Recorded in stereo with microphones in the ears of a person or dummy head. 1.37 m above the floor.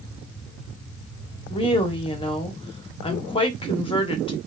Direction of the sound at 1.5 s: 30° left (ahead or behind).